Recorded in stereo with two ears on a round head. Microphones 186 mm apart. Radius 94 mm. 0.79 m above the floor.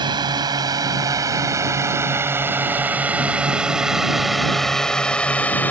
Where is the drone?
20° right (ahead or behind); by 5.7 s 10° left (ahead or behind).